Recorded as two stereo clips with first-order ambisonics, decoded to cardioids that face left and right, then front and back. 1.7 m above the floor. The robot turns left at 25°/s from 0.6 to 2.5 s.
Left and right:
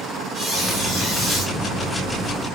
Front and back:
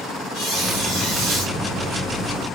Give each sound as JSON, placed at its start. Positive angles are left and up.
{"t": 0.3, "sound": "a squeak", "azimuth_deg": -160, "distance_m": 1.1}